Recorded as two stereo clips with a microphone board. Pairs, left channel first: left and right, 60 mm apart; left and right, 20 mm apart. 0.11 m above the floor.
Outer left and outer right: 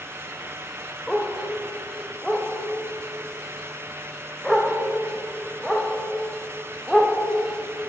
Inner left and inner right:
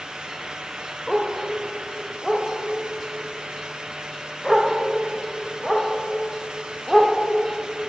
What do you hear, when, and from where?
1.1 s a dog barking: centre (ahead or behind), 3.5 m